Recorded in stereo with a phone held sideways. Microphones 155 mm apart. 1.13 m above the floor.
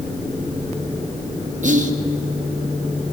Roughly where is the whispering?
Right.